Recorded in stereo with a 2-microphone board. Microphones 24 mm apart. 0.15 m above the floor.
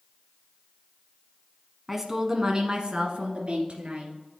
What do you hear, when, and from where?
1.9 s a woman speaking: 10° right (ahead or behind), 1.0 m; by 4.1 s 55° right (ahead or behind), 2 m